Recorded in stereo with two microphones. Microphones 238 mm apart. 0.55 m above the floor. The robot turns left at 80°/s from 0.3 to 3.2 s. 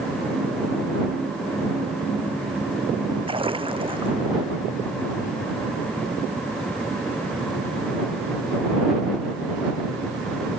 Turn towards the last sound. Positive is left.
turn(degrees=-20)  # may be behind; listen again after turning